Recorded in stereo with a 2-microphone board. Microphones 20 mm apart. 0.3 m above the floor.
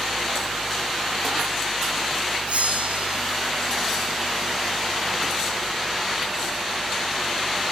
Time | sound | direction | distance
2.5 | a bell | 70° right (ahead or behind) | 3.5 m